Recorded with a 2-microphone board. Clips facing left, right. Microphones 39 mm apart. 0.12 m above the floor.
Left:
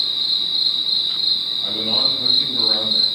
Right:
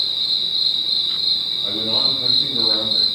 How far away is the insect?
About 1.7 m.